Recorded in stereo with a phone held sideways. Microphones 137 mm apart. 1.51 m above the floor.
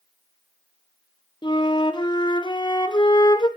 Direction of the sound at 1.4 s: 35° left (ahead or behind).